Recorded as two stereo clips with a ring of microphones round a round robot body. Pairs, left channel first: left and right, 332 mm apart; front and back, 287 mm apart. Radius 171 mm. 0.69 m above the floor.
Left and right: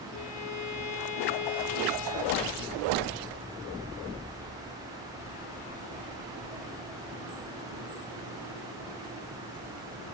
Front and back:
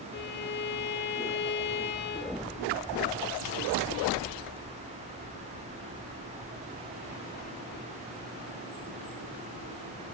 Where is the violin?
50° left, 3.5 m.